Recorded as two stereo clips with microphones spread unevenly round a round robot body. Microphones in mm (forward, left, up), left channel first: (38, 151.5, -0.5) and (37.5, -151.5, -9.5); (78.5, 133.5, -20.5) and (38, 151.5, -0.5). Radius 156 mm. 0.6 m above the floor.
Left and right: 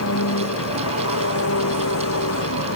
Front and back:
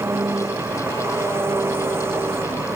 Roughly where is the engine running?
Behind left.